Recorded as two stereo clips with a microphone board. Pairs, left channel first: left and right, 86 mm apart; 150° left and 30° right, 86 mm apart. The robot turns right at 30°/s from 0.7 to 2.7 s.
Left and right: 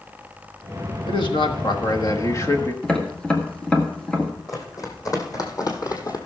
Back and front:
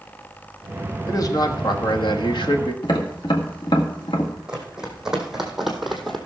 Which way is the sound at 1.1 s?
100° left.